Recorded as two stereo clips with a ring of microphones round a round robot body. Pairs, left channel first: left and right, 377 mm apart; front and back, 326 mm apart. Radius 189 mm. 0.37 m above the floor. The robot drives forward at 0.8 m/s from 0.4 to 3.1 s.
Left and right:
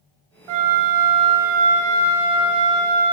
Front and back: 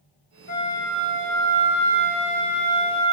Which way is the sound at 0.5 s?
70° right.